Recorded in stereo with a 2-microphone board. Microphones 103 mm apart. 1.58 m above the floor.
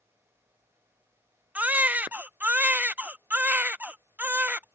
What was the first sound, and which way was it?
A baby crying, 15° right (ahead or behind).